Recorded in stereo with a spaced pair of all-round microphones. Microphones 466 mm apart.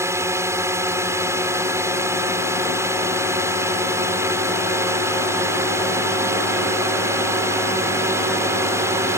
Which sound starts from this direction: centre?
A drone, at 0.0 s.